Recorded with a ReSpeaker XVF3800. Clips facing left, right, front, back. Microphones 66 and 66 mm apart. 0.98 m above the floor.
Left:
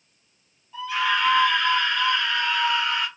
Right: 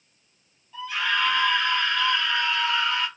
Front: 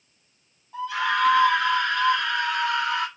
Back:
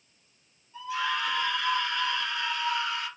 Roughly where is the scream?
Ahead.